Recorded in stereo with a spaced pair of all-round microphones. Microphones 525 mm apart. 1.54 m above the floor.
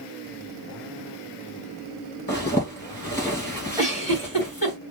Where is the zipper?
20° left (ahead or behind), 2 m.